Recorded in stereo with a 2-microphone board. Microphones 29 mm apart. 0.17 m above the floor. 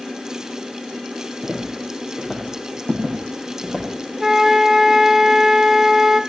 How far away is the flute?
About 1.1 m.